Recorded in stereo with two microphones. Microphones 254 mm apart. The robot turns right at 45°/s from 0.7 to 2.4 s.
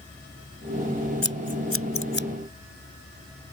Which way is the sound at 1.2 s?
75° left (ahead or behind).